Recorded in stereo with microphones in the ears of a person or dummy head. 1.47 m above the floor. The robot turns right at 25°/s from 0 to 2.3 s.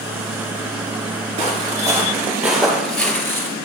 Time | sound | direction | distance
1.4 | footsteps | 35° right (ahead or behind) | 3.5 m